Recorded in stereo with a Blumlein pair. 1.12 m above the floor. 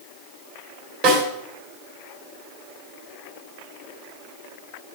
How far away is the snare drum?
About 3.5 m.